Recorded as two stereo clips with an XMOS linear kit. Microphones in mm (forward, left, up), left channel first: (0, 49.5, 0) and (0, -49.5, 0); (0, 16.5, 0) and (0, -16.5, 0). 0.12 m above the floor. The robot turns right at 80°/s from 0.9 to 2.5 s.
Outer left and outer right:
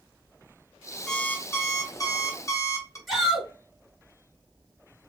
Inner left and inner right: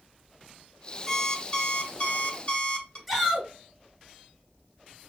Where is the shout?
Centre (ahead or behind), 2.5 m.